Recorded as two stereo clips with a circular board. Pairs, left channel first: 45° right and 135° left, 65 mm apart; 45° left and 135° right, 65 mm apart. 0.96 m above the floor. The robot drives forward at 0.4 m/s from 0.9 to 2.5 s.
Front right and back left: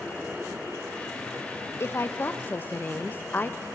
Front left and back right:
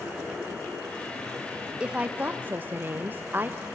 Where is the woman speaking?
70° right, 0.9 m; by 3.6 s 90° right, 0.8 m.